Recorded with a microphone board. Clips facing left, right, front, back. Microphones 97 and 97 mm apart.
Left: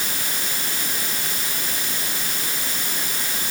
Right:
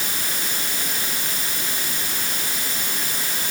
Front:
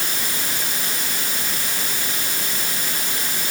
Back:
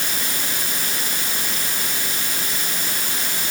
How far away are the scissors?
No scissors in this recording.